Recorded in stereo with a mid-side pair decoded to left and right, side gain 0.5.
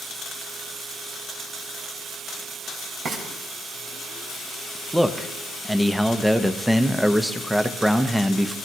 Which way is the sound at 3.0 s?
65° right.